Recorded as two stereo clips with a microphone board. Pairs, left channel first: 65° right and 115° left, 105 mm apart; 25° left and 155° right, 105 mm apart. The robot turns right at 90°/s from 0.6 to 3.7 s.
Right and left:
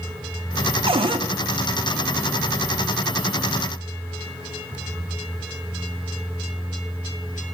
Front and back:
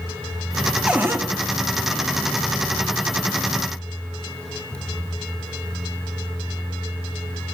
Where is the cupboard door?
120° left, 0.7 m; by 1.3 s 155° left, 0.7 m.